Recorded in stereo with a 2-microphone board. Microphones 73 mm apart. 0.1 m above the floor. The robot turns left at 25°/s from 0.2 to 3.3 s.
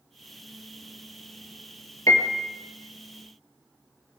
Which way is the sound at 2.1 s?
50° left (ahead or behind).